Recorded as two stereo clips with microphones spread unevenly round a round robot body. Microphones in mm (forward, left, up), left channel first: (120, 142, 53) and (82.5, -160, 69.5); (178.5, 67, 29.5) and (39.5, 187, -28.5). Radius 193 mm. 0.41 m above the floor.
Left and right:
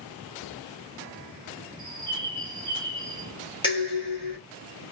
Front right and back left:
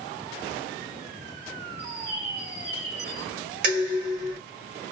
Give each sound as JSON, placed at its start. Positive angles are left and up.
{"t": 1.8, "sound": "a bird", "azimuth_deg": -155, "distance_m": 0.9}
{"t": 3.6, "sound": "dishes clattering", "azimuth_deg": 160, "distance_m": 1.3}